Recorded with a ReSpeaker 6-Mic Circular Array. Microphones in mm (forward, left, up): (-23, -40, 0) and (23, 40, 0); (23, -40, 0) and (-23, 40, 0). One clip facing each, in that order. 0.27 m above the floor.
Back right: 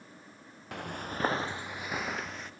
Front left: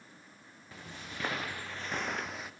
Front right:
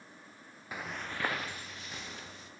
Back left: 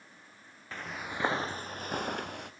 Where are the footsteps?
140° right, 1.1 m; by 2.5 s 145° left, 2 m.